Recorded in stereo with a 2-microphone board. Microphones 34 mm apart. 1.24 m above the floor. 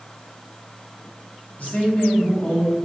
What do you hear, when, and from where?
1.6 s a man speaking: 50° left (ahead or behind), 1.4 m